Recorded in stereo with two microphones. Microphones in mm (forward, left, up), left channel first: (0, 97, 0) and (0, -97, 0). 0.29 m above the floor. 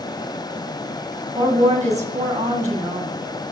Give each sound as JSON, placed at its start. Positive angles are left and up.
{"t": 1.4, "sound": "a woman speaking", "side_deg": -40, "distance_m": 1.9}